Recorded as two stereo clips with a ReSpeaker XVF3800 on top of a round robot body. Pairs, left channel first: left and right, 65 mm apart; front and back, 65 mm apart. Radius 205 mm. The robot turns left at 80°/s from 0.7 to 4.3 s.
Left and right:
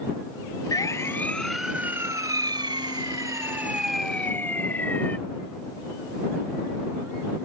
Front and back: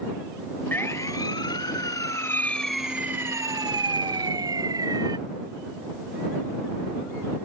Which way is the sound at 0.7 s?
60° left.